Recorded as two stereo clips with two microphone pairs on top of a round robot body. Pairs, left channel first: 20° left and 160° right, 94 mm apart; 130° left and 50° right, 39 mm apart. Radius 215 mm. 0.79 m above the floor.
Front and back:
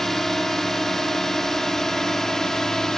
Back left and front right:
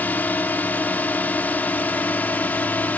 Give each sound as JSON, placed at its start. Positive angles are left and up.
{"t": 0.0, "sound": "a drone", "azimuth_deg": 105}